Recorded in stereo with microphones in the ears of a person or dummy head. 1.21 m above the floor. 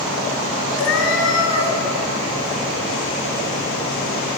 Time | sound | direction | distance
0.8 | a cat meowing | 65° left (ahead or behind) | 2.5 m